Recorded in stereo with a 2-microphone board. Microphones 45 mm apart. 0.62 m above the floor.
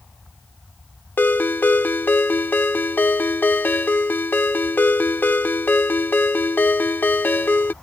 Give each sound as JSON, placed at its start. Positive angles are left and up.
{"t": 1.2, "sound": "a ringtone", "side_deg": 45}